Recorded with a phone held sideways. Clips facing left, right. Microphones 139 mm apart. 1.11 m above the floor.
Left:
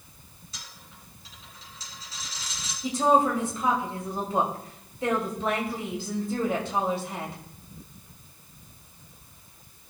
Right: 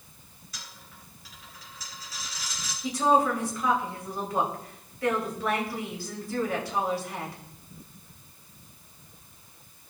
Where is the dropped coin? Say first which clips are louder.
Right 1 dB; 30° left (ahead or behind), 5 m.